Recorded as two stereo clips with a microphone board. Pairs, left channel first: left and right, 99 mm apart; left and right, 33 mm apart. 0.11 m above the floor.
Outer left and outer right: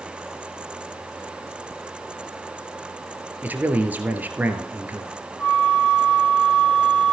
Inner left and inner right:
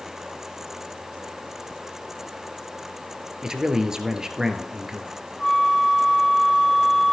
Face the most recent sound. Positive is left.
turn(degrees=10)  # may be behind; listen again after turning